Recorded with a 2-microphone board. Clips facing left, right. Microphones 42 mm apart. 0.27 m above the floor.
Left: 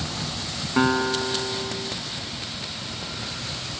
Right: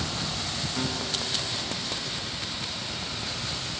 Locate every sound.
0.8 s a guitar: 70° left (ahead or behind)